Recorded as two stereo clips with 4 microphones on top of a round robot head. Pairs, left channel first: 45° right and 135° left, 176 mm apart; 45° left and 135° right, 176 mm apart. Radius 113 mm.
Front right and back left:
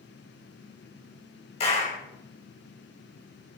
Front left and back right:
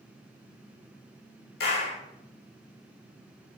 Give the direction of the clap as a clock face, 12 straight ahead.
12 o'clock.